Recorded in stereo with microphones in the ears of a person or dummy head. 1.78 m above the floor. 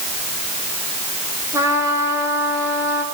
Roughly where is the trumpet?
Centre.